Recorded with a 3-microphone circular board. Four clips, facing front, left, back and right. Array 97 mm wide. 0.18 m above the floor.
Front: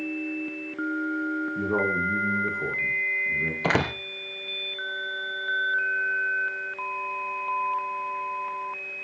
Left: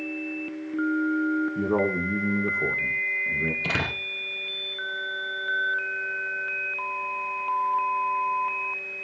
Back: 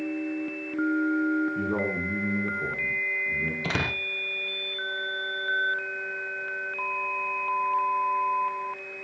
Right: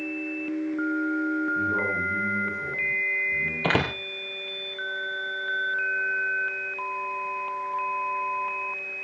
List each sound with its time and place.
1.6 s a man speaking: 65° left, 9.5 m
3.6 s a door slam: 35° right, 3.5 m